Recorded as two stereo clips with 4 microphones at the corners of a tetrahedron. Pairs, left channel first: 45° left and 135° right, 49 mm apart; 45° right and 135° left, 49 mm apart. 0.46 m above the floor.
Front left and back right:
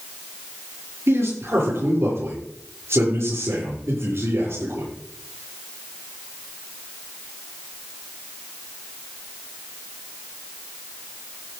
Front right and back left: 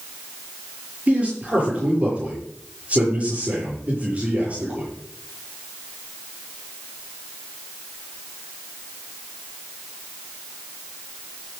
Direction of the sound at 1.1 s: 160° right.